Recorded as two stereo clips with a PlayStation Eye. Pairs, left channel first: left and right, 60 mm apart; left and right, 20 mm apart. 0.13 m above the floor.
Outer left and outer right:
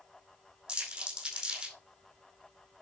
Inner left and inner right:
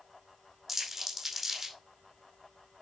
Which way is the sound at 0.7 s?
15° right (ahead or behind).